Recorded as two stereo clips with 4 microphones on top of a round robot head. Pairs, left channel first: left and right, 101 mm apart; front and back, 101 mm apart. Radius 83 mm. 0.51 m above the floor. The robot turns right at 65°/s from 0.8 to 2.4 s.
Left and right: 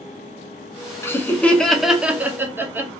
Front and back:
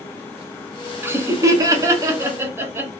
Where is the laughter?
130° left, 0.8 m; by 2.9 s 140° right, 0.8 m.